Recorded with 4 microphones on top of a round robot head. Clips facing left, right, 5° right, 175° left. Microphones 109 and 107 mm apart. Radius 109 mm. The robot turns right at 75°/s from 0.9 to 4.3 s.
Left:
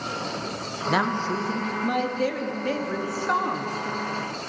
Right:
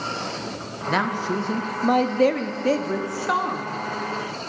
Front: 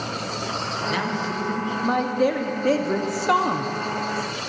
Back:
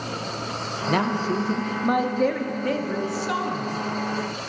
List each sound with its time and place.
0.9 s a man speaking: 170° left, 0.8 m; by 3.7 s 20° left, 0.8 m